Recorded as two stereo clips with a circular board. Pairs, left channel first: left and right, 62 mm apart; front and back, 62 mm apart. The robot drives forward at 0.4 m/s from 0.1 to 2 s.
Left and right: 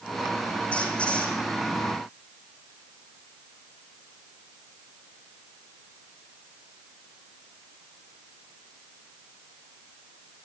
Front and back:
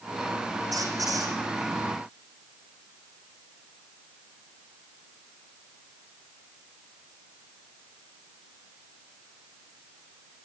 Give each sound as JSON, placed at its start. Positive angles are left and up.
{"t": 0.7, "sound": "a squeak", "azimuth_deg": 160, "distance_m": 6.0}